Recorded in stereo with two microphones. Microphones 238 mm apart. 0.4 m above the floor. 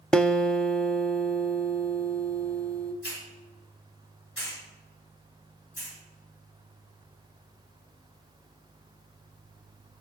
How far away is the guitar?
About 0.5 m.